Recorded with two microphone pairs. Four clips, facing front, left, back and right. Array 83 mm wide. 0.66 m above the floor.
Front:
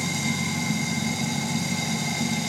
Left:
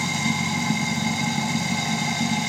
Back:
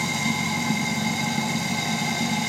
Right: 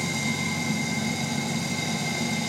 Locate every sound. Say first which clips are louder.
0.0 s running water: left 4 dB, back 2 dB; 125° left, 1.3 m